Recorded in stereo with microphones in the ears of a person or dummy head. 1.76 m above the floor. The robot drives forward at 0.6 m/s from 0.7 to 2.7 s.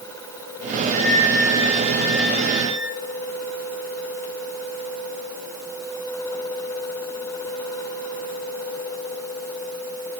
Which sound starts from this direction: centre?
A flute, at 0.8 s.